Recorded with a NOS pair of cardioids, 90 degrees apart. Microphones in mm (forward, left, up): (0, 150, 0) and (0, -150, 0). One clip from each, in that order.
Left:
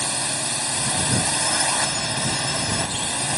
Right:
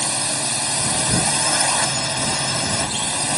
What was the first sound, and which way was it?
A drone, 20° right.